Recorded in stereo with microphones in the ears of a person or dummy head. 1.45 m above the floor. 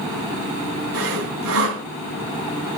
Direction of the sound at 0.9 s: 85° right.